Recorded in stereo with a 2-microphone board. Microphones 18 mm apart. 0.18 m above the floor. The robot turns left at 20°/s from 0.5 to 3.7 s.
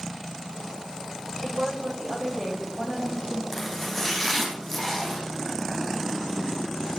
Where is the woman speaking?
5° left, 8.5 m; by 3.4 s 35° right, 8.5 m.